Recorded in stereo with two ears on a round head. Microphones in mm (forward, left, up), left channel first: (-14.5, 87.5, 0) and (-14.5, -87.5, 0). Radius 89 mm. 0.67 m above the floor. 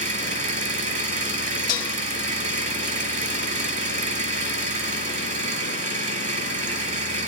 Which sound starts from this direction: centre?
Dishes clattering, at 1.7 s.